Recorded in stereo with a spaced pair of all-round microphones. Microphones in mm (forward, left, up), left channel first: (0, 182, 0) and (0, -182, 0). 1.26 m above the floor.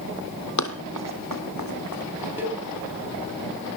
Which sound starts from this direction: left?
Running footsteps, at 0.6 s.